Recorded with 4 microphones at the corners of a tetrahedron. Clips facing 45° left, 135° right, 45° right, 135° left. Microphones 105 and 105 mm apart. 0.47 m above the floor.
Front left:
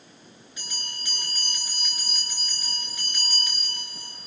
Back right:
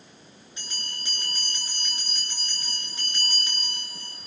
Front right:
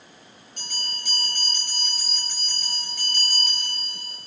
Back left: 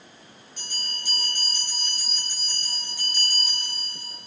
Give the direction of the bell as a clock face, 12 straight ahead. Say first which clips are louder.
Back right 1 dB, front right 2 dB; 3 o'clock.